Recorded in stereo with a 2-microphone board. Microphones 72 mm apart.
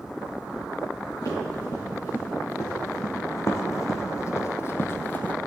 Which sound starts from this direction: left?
Running footsteps, at 1.2 s.